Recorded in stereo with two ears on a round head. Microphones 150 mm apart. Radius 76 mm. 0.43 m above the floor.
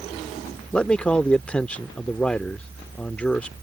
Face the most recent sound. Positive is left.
turn(degrees=5)  # may be behind; listen again after turning